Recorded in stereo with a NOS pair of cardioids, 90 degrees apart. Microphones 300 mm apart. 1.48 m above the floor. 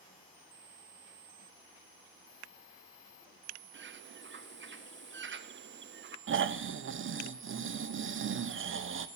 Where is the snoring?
45° right, 1.0 m.